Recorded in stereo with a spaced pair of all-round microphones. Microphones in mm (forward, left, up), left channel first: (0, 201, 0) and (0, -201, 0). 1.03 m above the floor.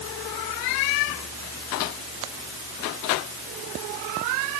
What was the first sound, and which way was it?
Only background noise.